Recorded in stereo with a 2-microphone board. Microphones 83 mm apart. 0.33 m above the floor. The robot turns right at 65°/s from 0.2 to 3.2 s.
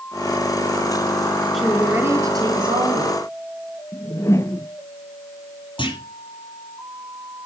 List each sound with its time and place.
1.5 s a woman speaking: 175° left, 3 m; by 3.2 s 80° right, 3 m
3.9 s a whoosh: 35° left (ahead or behind), 1.1 m
5.8 s a clunk: 80° left, 6 m